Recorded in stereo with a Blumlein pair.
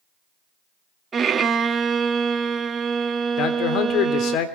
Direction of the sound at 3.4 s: 35° left.